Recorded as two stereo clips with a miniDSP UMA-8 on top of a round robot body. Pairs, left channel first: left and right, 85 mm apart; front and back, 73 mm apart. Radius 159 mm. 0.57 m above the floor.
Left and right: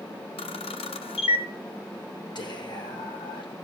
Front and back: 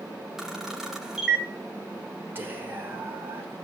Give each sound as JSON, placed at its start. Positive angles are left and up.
{"t": 0.4, "sound": "a camera shutter", "azimuth_deg": 95, "distance_m": 0.6}
{"t": 2.4, "sound": "whispering", "azimuth_deg": 120, "distance_m": 2.5}